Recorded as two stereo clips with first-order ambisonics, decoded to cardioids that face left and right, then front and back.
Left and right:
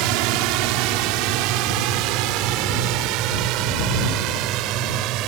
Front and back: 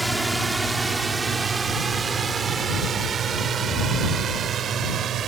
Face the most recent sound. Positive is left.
turn(degrees=-125)